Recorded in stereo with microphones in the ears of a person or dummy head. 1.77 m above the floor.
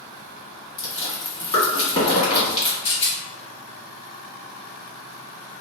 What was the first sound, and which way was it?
Chewing, 40° left (ahead or behind).